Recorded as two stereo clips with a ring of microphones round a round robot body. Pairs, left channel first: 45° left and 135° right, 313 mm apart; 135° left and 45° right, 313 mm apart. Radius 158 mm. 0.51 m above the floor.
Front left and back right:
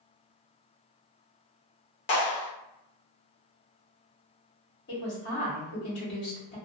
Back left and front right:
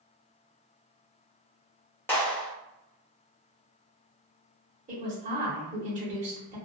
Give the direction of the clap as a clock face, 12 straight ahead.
10 o'clock.